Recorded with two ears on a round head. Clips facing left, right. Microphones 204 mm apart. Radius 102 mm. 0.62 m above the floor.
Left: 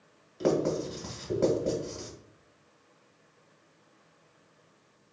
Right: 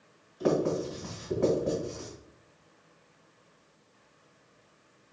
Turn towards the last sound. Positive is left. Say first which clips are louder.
# even
turn(degrees=60)  # may be behind; listen again after turning